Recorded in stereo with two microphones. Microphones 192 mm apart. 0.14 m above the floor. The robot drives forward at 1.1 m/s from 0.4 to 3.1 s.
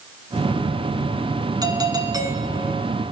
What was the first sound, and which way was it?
A doorbell, 20° right (ahead or behind).